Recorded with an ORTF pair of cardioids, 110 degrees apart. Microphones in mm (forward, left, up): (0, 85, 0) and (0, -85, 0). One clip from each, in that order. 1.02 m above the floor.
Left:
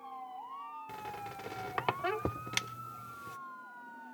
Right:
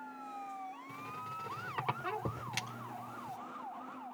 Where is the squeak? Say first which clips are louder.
Left 1 dB; 45° left, 1.3 m.